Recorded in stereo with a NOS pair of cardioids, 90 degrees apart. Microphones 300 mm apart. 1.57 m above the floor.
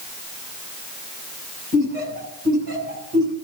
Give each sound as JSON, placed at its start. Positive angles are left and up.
{"t": 1.7, "sound": "laughter", "azimuth_deg": -40, "distance_m": 8.0}